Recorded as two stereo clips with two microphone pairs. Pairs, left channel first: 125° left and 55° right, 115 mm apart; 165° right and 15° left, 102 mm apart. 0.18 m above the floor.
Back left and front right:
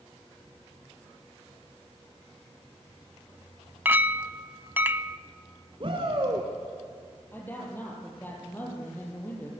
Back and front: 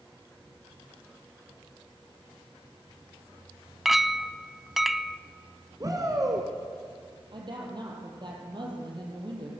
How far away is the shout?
About 2.0 m.